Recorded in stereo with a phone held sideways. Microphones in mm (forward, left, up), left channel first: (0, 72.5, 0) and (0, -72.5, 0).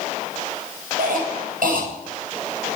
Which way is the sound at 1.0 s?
75° right (ahead or behind).